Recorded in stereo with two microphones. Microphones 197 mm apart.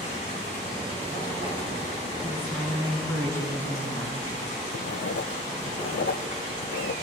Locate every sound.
0.0 s running water: 35° left (ahead or behind), 6.5 m
2.2 s a woman speaking: 15° left (ahead or behind), 4 m
4.7 s writing: 80° left, 0.5 m